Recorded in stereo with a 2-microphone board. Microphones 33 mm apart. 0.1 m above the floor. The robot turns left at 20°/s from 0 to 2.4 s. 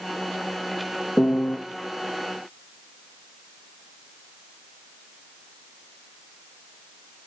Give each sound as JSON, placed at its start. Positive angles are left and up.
{"t": 1.2, "sound": "a piano", "side_deg": 35, "distance_m": 2.5}